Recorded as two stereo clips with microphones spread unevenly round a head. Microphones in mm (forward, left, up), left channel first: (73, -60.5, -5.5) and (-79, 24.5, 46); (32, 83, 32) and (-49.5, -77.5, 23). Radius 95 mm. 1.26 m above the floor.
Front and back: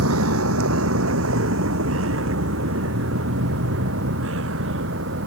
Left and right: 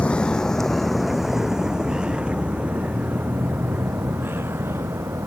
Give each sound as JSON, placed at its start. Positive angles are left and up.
{"t": 0.0, "sound": "a vehicle", "azimuth_deg": 145}